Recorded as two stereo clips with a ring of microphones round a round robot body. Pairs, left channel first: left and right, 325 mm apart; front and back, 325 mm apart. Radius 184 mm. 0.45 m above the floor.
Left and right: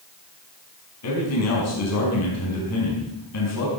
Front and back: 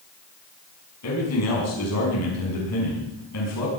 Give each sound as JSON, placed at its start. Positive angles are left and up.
{"t": 1.0, "sound": "a man speaking", "azimuth_deg": 45, "distance_m": 5.5}